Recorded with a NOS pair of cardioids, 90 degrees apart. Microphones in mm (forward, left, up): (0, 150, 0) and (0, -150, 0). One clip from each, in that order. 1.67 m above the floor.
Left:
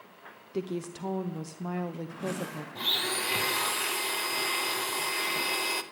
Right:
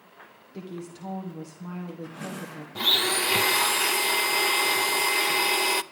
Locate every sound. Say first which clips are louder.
0.5 s a woman speaking: left 5 dB; 35° left, 1.2 m
2.8 s a blender: right 6 dB; 30° right, 0.7 m